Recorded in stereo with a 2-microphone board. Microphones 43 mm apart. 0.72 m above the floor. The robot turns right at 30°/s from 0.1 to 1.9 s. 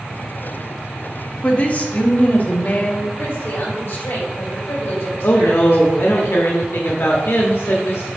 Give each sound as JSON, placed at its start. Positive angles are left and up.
{"t": 1.4, "sound": "a woman speaking", "side_deg": 30, "distance_m": 1.1}
{"t": 3.2, "sound": "a woman speaking", "side_deg": 65, "distance_m": 3.0}
{"t": 5.2, "sound": "a woman speaking", "side_deg": 65, "distance_m": 1.0}